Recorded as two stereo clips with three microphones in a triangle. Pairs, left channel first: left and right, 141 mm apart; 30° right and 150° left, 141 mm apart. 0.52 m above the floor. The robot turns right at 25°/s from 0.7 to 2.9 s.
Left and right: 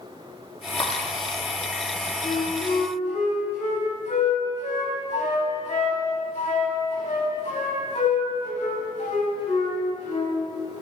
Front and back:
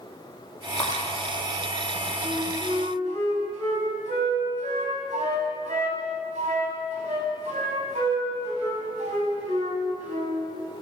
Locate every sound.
0.8 s breaking glass: 40° left, 5 m; by 1.0 s 45° left, 5 m
2.2 s a flute: 105° left, 4 m; by 10.4 s 120° left, 4 m